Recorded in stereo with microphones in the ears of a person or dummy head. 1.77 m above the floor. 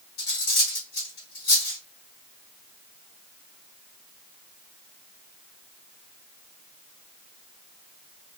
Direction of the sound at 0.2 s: 50° left (ahead or behind).